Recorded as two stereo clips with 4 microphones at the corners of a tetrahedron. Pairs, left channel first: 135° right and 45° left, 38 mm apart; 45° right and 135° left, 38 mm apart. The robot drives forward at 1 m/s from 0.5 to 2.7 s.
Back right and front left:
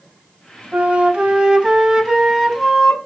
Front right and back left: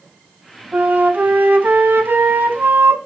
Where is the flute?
100° left, 2.5 m; by 3.0 s 135° left, 3.5 m.